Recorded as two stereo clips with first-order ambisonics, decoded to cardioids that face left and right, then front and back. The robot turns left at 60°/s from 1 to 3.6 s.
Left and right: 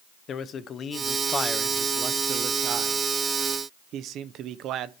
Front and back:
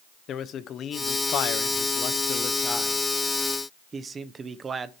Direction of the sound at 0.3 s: 40° left.